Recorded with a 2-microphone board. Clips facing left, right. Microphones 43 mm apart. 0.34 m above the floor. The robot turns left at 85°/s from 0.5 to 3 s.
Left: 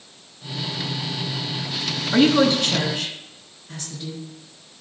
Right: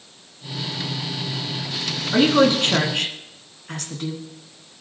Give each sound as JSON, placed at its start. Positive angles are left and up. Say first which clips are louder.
{"t": 2.1, "sound": "a woman speaking", "louder": "even", "side_deg": 5, "distance_m": 3.0}